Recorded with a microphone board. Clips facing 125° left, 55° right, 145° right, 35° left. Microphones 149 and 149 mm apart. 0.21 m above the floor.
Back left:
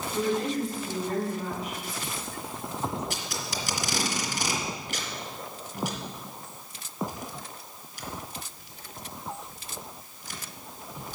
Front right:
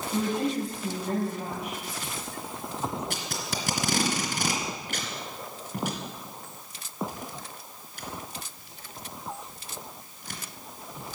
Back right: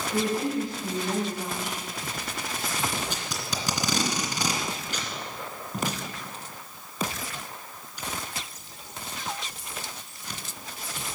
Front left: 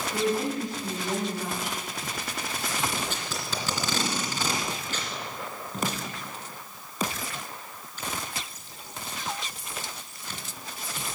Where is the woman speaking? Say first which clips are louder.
Even, back right 1 dB; 60° right, 6.5 m.